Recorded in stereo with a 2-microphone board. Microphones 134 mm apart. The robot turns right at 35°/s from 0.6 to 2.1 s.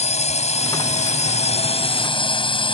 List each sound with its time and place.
0.0 s a drone: 80° left; by 2.7 s 130° left